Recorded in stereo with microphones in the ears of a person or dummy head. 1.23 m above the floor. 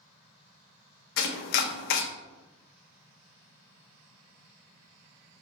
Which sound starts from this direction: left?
Chopping, at 1.2 s.